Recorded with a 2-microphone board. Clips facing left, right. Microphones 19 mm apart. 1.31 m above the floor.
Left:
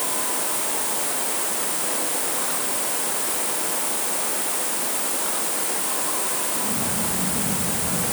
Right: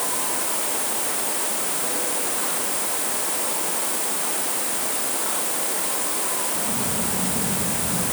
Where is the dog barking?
I don't hear a dog barking.